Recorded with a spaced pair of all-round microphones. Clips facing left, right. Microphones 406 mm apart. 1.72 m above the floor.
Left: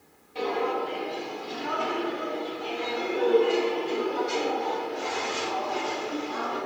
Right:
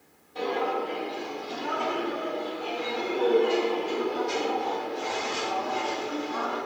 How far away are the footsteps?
About 2.5 m.